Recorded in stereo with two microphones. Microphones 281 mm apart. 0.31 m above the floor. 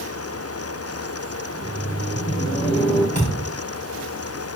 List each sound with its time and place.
1.5 s laughter: 25° left (ahead or behind), 1.2 m; by 3.0 s 20° left (ahead or behind), 2 m
3.1 s a thud: 30° left (ahead or behind), 5 m